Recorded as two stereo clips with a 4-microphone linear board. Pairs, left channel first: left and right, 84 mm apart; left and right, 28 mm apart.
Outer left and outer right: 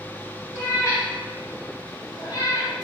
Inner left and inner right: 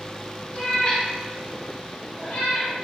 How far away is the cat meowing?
About 1.0 m.